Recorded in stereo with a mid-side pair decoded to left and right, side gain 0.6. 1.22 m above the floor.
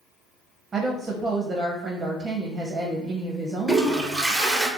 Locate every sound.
0.7 s a woman speaking: 25° right, 0.6 m
3.7 s a toilet flushing: 10° right, 0.6 m